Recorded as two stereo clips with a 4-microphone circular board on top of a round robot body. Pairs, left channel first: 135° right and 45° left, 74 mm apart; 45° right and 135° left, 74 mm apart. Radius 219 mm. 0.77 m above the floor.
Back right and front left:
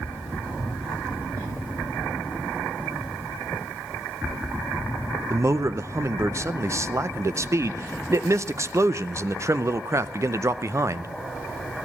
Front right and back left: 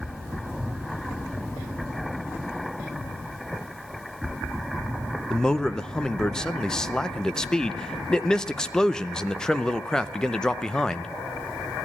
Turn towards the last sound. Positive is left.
turn(degrees=35)